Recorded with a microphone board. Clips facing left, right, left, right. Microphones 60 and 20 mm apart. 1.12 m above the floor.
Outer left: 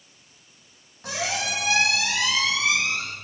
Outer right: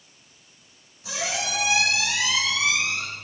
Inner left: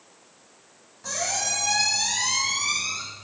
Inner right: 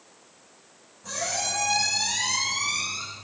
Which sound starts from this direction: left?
A squeak, at 1.0 s.